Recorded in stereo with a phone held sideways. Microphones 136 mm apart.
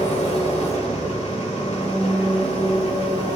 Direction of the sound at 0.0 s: 50° left (ahead or behind).